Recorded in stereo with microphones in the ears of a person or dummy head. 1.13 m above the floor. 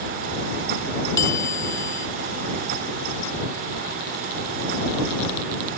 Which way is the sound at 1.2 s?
20° left (ahead or behind).